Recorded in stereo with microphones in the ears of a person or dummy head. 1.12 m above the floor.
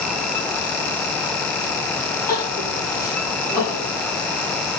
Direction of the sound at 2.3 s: 20° left (ahead or behind).